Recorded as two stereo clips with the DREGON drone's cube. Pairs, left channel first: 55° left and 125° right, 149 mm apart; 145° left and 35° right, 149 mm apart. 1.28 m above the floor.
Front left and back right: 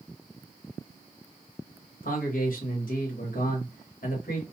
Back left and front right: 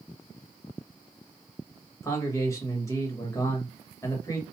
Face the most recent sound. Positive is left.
turn(degrees=75)